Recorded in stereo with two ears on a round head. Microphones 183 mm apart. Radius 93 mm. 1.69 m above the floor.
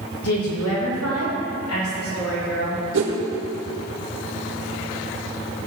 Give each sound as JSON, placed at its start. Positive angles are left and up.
{"t": 0.2, "sound": "a woman speaking", "side_deg": 85, "distance_m": 2.5}
{"t": 2.9, "sound": "a whoosh", "side_deg": -60, "distance_m": 1.7}